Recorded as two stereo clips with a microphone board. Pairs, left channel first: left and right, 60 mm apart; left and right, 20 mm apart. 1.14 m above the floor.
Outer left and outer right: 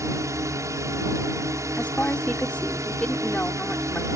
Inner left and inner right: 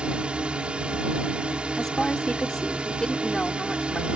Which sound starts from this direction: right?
A drone, at 0.0 s.